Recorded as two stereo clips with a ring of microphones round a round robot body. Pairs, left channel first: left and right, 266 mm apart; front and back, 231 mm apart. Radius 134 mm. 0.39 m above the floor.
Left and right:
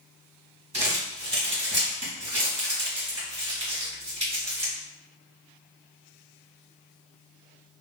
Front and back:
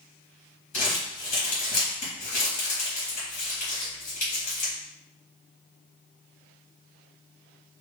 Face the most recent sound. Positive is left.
turn(degrees=-35)